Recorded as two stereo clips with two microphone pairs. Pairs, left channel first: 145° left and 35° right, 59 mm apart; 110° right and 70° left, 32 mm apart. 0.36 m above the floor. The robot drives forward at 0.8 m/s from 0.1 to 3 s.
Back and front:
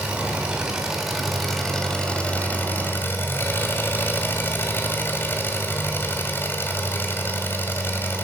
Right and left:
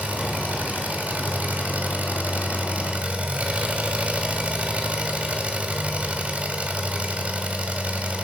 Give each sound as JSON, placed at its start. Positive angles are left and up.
{"t": 0.0, "sound": "an engine running", "azimuth_deg": 40, "distance_m": 2.5}